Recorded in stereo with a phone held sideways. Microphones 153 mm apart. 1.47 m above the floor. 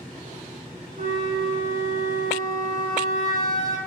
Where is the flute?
60° right (ahead or behind), 0.6 m.